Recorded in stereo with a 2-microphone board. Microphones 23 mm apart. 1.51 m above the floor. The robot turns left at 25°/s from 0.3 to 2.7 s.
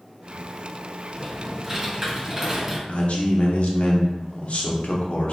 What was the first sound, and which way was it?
Typing on a keyboard, 15° right (ahead or behind).